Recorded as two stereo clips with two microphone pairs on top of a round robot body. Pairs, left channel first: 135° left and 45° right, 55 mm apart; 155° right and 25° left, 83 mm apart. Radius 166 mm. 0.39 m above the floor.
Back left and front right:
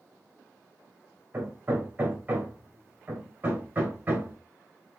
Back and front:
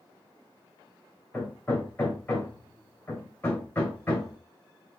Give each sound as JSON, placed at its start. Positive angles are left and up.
{"t": 1.3, "sound": "hammering", "azimuth_deg": -90, "distance_m": 2.5}